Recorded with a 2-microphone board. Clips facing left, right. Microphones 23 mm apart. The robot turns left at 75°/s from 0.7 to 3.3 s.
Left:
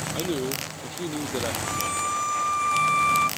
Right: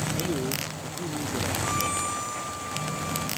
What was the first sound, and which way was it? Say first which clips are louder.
A man speaking: left 1 dB; 140° left.